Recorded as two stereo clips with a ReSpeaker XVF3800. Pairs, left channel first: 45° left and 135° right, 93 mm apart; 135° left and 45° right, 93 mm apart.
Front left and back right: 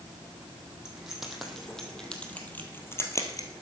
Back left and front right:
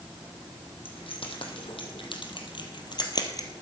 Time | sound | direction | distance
0.8 | keys jangling | 145° left | 3.5 m